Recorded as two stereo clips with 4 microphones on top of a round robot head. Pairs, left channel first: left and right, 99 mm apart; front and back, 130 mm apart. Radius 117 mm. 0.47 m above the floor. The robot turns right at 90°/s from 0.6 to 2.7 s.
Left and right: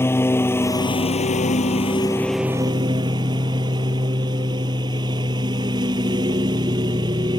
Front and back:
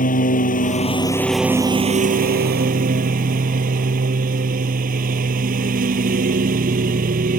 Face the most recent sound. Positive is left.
turn(degrees=-150)